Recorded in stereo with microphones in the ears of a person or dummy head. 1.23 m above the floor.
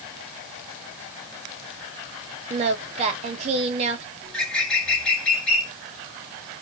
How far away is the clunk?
I don't hear a clunk.